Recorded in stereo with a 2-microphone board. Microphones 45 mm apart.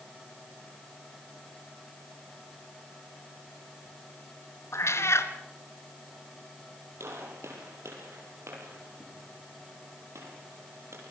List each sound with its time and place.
4.7 s a cat meowing: 80° left, 2 m
7.0 s a gunshot: 80° right, 8 m